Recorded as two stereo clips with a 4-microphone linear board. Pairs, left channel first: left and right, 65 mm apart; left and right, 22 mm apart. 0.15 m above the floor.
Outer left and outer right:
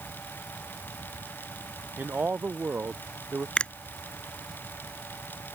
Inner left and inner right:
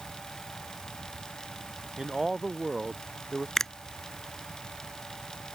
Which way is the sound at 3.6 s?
15° left (ahead or behind).